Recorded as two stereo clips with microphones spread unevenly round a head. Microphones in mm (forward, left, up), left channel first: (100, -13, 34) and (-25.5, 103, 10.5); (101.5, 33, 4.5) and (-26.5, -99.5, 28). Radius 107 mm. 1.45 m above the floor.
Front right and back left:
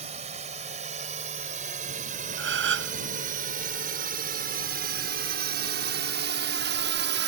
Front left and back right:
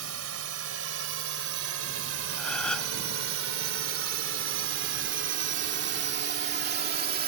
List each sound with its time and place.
0.0 s a drone: 160° right; by 7.3 s 170° left
2.4 s a gasp: 135° left